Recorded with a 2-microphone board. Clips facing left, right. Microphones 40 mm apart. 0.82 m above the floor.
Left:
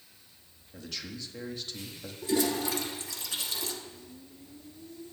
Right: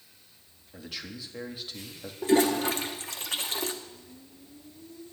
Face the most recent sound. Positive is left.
turn(degrees=-50)  # may be behind; listen again after turning